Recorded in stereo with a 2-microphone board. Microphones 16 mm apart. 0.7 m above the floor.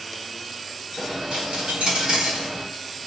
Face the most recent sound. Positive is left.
turn(degrees=-85)